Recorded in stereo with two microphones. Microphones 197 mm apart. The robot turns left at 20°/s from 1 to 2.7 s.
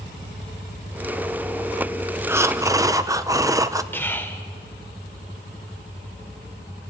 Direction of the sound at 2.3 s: 10° right (ahead or behind).